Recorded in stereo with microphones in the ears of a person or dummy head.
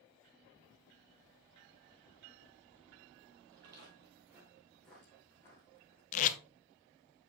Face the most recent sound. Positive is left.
turn(degrees=45)  # may be behind; listen again after turning